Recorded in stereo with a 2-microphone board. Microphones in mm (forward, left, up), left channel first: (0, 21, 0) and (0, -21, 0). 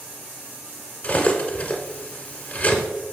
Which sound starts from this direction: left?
Cutlery clinking, at 1.0 s.